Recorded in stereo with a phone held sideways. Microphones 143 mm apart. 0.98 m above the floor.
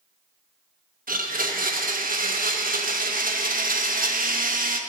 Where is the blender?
80° right, 0.8 m.